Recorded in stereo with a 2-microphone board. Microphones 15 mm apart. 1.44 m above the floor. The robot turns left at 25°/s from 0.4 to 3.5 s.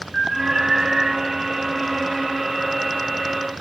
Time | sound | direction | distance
0.1 | an alarm | 30° right (ahead or behind) | 6 m